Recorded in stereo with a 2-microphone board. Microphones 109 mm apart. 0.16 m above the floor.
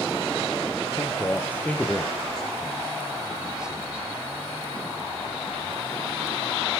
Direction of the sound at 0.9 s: 25° left (ahead or behind).